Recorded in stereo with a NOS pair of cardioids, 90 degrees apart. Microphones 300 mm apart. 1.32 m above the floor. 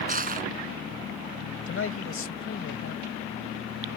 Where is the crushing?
30° right.